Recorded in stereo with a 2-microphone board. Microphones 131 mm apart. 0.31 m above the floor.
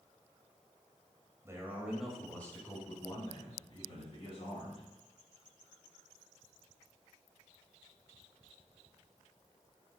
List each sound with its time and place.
1.4 s a man speaking: 25° right (ahead or behind), 1.2 m; by 4.9 s 50° left (ahead or behind), 2.5 m